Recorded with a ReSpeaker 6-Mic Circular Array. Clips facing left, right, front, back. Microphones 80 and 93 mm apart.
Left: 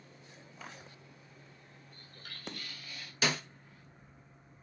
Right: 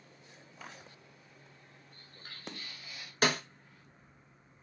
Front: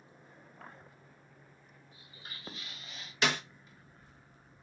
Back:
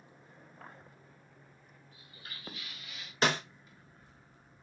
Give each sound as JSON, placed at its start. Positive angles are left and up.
{"t": 1.9, "sound": "footsteps", "azimuth_deg": -60, "distance_m": 1.6}
{"t": 3.2, "sound": "a snare drum", "azimuth_deg": -130, "distance_m": 0.7}